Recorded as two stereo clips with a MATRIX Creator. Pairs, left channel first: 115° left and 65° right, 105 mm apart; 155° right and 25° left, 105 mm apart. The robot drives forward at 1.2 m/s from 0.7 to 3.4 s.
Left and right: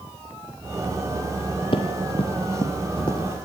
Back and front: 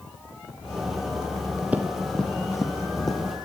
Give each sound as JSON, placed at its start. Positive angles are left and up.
{"t": 1.7, "sound": "running footsteps", "azimuth_deg": 95, "distance_m": 2.0}